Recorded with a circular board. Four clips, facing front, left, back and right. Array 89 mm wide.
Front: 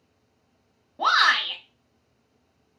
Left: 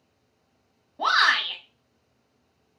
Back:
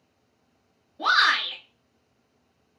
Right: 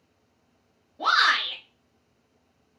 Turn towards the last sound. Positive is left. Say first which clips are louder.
# even, front 1 dB
turn(degrees=25)